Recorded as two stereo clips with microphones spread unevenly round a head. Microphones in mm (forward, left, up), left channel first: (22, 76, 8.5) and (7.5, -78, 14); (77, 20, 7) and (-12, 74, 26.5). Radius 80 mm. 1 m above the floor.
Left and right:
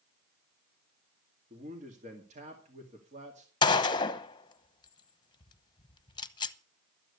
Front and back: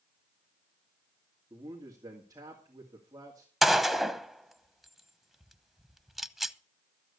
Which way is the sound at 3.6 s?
45° left.